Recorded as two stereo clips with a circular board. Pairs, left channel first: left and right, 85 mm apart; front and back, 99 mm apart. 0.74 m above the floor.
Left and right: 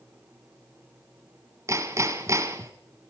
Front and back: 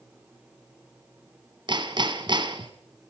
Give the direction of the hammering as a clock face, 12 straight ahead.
5 o'clock.